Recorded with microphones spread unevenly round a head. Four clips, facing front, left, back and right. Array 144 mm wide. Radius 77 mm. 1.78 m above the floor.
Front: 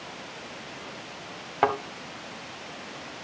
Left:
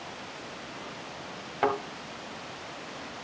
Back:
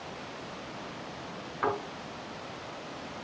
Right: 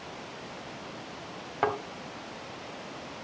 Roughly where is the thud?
Ahead.